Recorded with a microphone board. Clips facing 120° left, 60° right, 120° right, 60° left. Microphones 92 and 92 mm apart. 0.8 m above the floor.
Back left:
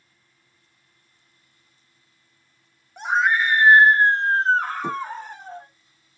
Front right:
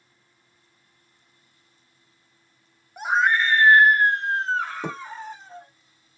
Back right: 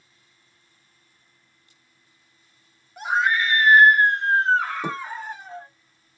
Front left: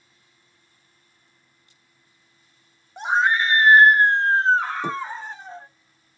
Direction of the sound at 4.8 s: 40° right.